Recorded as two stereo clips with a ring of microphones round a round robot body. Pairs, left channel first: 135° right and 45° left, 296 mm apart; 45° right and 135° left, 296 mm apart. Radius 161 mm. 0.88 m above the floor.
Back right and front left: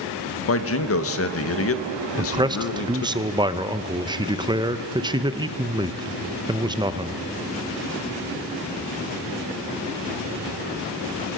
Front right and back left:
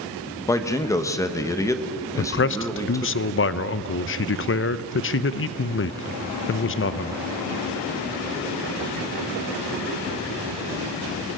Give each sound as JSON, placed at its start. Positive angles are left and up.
{"t": 0.5, "sound": "a man speaking", "azimuth_deg": -120, "distance_m": 1.3}
{"t": 2.2, "sound": "a man speaking", "azimuth_deg": -25, "distance_m": 0.6}